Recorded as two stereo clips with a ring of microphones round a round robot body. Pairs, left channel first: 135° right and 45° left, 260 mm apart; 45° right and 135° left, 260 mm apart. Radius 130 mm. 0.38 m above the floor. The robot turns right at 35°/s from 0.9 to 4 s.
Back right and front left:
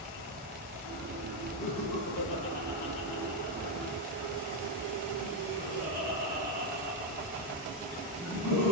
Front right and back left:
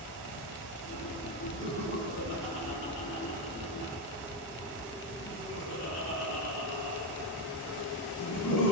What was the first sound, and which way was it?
Laughter, 120° right.